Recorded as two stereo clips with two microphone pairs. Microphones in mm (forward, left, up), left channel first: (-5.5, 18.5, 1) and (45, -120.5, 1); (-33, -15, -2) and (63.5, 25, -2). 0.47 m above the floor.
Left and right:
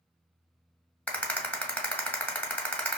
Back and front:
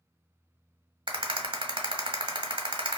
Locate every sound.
1.1 s a rattle: 30° left, 0.7 m